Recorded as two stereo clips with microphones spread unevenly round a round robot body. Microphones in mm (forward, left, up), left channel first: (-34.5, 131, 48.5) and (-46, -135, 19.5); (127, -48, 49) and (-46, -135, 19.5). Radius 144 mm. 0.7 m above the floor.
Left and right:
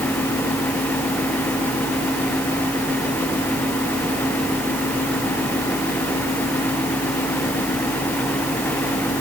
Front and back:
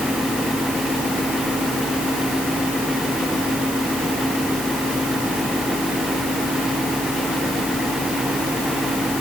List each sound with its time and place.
Only background noise.